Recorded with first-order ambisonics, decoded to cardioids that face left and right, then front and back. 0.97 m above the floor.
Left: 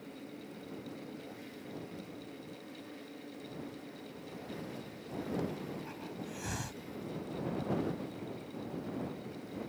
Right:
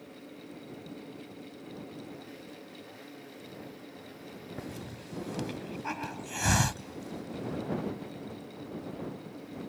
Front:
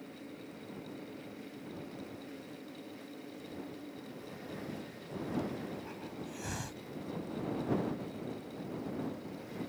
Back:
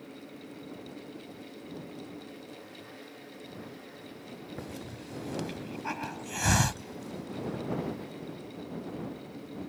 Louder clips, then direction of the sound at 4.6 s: Right 2 dB, back 2 dB; 135° right.